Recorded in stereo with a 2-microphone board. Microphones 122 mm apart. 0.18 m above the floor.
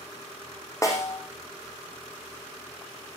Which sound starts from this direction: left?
A snare drum, at 0.8 s.